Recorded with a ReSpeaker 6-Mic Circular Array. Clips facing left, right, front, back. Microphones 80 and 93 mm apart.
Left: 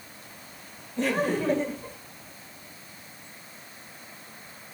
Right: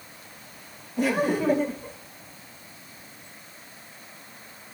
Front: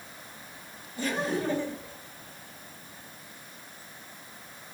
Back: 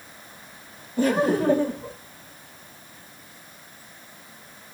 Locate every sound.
1.0 s laughter: 170° right, 1.6 m